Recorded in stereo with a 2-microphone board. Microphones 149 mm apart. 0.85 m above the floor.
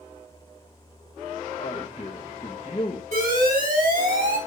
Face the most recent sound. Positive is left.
turn(degrees=-85)